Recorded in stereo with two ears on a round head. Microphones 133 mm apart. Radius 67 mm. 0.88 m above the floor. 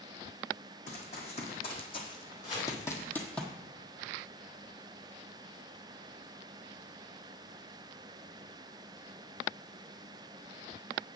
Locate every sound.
0.9 s running footsteps: 45° left (ahead or behind), 2 m; by 3.4 s 5° left (ahead or behind), 1.1 m
2.4 s chopping: 35° left (ahead or behind), 4 m